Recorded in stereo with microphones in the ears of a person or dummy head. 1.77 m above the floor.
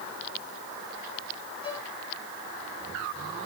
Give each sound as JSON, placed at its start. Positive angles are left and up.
{"t": 1.6, "sound": "a violin", "side_deg": 25, "distance_m": 3.0}